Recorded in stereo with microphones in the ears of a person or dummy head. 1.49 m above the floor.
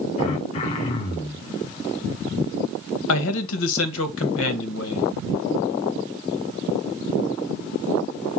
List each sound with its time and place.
0.2 s throat clearing: 40° left (ahead or behind), 1.6 m
3.1 s a man speaking: 75° left (ahead or behind), 1.8 m